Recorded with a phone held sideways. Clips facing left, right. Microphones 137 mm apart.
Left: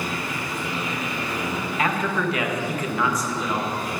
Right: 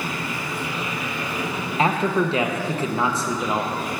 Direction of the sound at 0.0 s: 10° right (ahead or behind).